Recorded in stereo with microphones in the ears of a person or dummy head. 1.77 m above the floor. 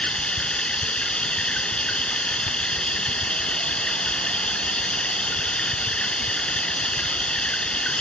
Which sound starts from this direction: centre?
Running water, at 0.0 s.